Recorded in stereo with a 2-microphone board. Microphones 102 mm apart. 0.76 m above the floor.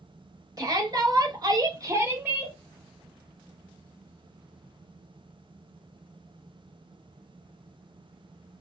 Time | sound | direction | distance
0.6 | a shout | 35° right (ahead or behind) | 1.2 m